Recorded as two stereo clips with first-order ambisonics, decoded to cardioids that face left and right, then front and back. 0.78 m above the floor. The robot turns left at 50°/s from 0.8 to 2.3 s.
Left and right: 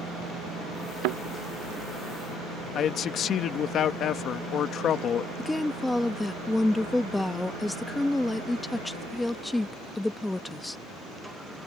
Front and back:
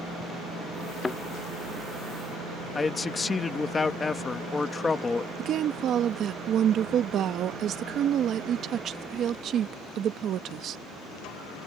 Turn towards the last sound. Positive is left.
turn(degrees=170)